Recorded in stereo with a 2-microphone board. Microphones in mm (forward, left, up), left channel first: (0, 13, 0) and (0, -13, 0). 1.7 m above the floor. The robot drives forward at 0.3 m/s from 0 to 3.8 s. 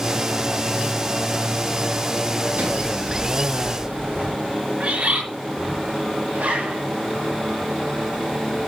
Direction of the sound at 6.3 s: 80° right.